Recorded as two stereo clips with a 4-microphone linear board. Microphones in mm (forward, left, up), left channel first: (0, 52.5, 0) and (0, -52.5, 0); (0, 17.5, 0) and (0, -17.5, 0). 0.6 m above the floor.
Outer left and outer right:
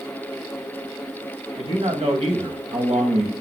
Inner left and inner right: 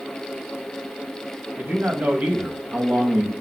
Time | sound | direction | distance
1.6 | a man speaking | 65° right (ahead or behind) | 3.5 m